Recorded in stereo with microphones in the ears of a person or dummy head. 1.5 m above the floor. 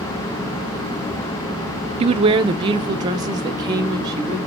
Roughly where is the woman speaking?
Right.